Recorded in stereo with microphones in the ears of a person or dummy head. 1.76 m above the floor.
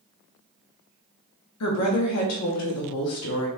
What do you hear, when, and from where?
1.6 s a woman speaking: 75° left (ahead or behind), 0.8 m